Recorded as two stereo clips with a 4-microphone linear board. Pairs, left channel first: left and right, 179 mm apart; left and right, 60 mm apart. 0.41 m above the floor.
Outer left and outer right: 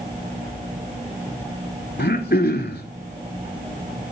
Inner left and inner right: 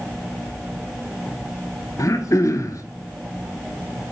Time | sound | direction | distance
2.0 | throat clearing | 70° left (ahead or behind) | 0.8 m